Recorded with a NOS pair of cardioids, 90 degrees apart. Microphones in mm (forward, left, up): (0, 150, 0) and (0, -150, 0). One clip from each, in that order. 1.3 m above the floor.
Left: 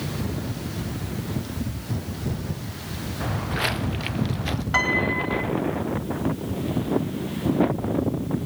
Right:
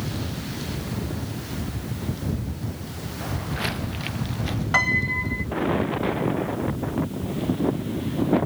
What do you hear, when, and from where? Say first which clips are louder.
3.2 s footsteps: left 3 dB; 45° left; by 4.6 s 40° left
4.7 s a piano: right 1 dB; 15° right